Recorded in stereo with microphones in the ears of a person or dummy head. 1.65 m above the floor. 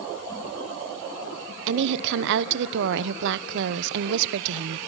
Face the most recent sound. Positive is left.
turn(degrees=-65)  # may be behind; listen again after turning